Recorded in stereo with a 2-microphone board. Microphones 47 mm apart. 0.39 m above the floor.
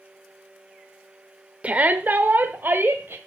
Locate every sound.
1.6 s a shout: 25° right (ahead or behind), 0.9 m; by 3.2 s 45° right (ahead or behind), 1.5 m